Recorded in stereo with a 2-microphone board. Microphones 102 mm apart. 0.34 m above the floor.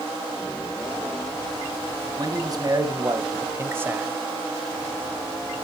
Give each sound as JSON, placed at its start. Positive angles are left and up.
{"t": 2.2, "sound": "a man speaking", "side_deg": -45, "distance_m": 2.5}